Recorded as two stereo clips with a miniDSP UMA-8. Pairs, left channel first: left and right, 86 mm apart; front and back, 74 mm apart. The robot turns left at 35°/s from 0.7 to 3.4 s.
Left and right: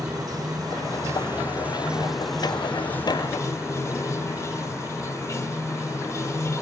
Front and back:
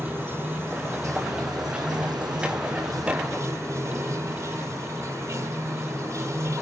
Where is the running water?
125° right, 0.8 m; by 6.6 s 140° left, 0.8 m.